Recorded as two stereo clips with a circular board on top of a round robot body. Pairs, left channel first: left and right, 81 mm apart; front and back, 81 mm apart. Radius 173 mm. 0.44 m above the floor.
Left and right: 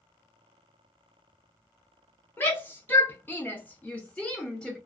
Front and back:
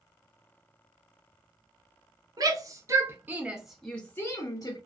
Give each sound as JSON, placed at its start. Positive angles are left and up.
{"t": 2.4, "sound": "a shout", "azimuth_deg": 155, "distance_m": 1.2}